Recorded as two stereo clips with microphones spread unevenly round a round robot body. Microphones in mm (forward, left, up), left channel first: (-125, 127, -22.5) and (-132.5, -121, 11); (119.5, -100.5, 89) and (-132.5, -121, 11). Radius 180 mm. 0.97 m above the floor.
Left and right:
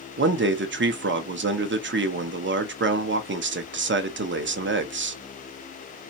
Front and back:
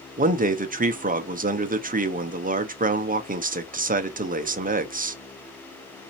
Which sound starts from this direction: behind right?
A man speaking, at 0.2 s.